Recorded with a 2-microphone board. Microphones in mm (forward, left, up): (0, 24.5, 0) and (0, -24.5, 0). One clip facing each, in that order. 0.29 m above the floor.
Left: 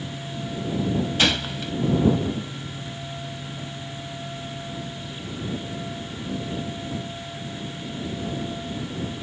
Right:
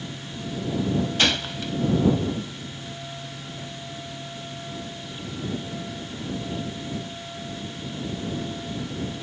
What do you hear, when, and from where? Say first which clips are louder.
1.2 s a gunshot: left 1 dB; centre (ahead or behind)